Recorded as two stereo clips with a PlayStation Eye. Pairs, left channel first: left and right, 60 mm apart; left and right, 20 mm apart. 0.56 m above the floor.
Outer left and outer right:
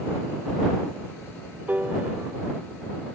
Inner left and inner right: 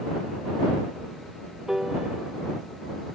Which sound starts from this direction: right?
A piano, at 1.7 s.